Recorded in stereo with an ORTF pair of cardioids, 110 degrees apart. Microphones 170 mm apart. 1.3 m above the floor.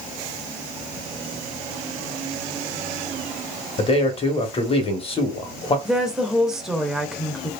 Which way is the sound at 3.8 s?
35° left.